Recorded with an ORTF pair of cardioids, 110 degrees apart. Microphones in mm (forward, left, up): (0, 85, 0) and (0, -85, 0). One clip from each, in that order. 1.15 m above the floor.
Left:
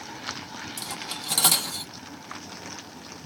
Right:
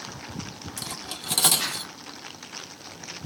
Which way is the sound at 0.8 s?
5° right.